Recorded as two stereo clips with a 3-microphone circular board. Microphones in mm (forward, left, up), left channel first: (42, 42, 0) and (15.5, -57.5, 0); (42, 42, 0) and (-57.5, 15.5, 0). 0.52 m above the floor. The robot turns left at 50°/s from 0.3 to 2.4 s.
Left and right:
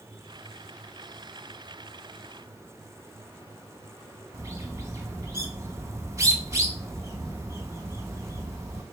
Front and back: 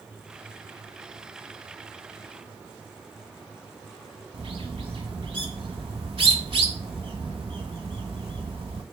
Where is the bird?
160° right, 0.7 m.